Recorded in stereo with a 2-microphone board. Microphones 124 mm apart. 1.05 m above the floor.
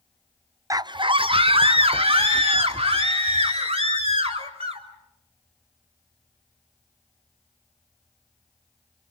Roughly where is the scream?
Right.